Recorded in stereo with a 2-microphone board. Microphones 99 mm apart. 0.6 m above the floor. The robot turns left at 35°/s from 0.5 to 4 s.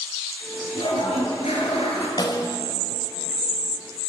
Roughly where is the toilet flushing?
Behind left.